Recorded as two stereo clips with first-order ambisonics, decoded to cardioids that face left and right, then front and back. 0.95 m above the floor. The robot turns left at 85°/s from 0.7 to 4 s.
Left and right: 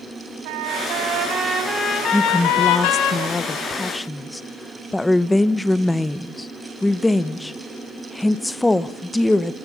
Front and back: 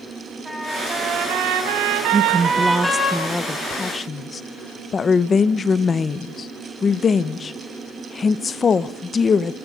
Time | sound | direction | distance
0.5 | a trumpet | 95° right | 4.5 m
2.1 | a woman speaking | 175° left | 0.7 m